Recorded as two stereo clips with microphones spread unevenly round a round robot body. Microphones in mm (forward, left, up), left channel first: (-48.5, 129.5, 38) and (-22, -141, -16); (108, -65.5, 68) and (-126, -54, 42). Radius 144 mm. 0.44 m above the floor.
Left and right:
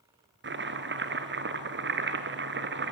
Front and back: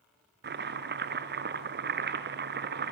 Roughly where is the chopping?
Behind right.